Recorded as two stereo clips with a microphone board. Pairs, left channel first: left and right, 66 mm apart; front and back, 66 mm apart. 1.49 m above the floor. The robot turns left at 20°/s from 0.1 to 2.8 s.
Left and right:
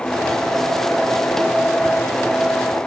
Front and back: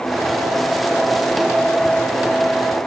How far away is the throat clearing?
I don't hear throat clearing.